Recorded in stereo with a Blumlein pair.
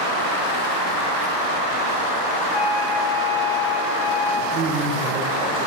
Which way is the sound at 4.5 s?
35° right.